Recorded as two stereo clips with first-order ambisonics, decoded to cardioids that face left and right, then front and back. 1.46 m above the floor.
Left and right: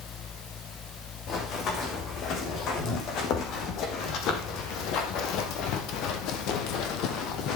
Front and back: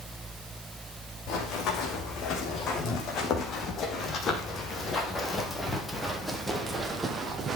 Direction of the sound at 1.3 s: 40° left.